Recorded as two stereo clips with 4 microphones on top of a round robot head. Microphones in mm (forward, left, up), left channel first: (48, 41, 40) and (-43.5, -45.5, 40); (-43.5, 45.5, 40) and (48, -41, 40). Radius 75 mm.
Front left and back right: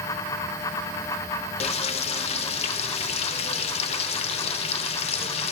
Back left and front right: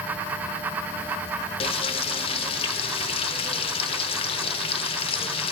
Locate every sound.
1.6 s frying: 90° left, 0.6 m